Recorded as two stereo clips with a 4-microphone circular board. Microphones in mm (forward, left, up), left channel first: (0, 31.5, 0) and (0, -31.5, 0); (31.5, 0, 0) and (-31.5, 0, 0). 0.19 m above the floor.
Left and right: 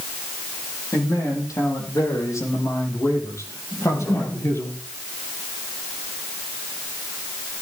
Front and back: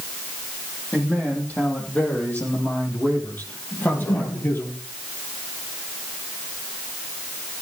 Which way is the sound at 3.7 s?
45° left.